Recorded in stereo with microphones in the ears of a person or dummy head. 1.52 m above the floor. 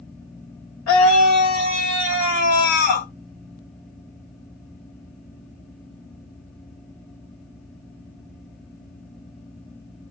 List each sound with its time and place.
0.9 s a scream: 80° left, 3 m; by 3.1 s 50° left (ahead or behind), 1.4 m